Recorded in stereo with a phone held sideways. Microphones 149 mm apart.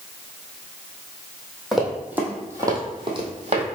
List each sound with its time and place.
1.7 s running footsteps: centre (ahead or behind), 1.5 m; by 3.7 s 50° right (ahead or behind), 1.4 m